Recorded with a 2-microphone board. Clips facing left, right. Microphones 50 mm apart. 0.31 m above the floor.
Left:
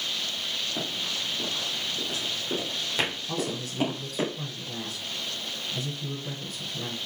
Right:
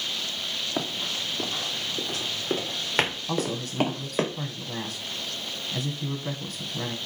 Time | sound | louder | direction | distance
0.8 | running footsteps | right 2 dB | 60° right (ahead or behind) | 3.5 m
3.3 | a man speaking | right 2 dB | 60° right (ahead or behind) | 1.8 m